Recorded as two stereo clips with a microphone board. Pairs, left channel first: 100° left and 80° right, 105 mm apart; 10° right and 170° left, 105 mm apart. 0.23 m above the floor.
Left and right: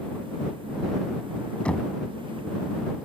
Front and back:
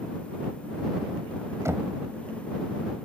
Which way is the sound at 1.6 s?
165° left.